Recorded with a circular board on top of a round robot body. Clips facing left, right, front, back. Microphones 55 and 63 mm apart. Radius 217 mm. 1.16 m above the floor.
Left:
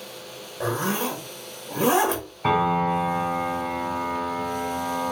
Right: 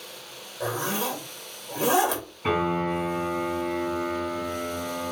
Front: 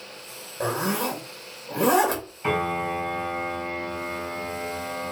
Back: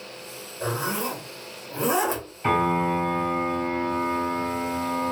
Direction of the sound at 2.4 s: 95° left.